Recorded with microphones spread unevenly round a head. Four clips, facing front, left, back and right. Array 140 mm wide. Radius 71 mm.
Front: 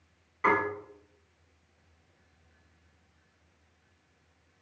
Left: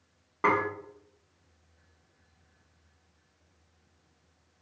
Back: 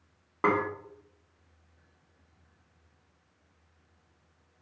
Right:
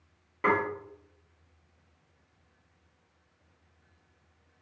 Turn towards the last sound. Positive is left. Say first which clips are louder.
# left 1 dB, even
turn(degrees=165)